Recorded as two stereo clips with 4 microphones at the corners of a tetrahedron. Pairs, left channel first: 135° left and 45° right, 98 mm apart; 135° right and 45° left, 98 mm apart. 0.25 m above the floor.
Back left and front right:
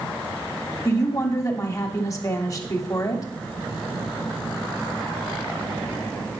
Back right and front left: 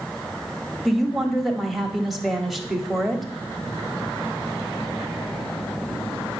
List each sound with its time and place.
0.8 s a woman speaking: 135° left, 1.4 m